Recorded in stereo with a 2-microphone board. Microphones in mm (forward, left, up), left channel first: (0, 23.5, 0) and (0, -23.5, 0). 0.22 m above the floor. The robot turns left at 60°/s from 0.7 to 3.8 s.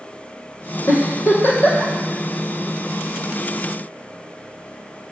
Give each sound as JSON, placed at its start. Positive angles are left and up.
{"t": 0.9, "sound": "a giggle", "side_deg": 85, "distance_m": 1.4}